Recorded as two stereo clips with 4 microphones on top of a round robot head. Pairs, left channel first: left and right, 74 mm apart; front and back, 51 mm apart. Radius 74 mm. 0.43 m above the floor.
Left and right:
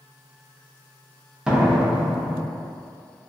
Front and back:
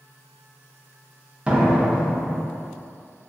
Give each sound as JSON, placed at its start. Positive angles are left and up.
{"t": 1.5, "sound": "a door slam", "azimuth_deg": -155, "distance_m": 0.7}